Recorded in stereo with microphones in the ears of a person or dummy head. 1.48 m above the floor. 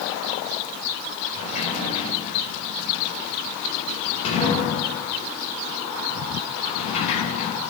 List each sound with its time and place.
1.4 s a sliding door: 40° left (ahead or behind), 7.5 m